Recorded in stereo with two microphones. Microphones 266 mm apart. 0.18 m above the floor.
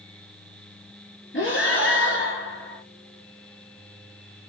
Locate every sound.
1.3 s breathing: 50° left (ahead or behind), 1.3 m